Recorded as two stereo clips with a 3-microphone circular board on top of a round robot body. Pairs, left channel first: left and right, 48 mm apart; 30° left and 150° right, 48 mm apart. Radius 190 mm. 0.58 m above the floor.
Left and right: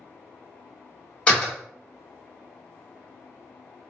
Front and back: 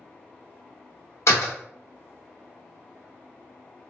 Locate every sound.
1.3 s a door slam: 20° left, 1.2 m